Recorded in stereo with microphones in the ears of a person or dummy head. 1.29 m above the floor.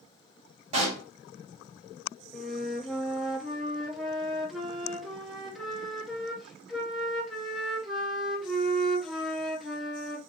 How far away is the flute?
About 0.8 m.